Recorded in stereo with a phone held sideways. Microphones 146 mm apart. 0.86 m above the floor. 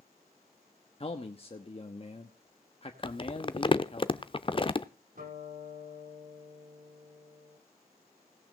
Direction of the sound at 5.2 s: 65° right (ahead or behind).